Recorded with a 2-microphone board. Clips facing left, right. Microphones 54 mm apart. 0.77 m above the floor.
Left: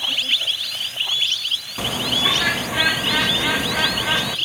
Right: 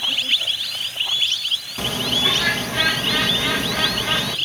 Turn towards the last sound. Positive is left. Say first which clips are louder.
# left 1 dB
turn(degrees=10)  # may be behind; listen again after turning